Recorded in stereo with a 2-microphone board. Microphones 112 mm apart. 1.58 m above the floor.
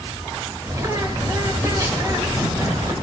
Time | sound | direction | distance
0.6 | a bird | 25° right (ahead or behind) | 3.5 m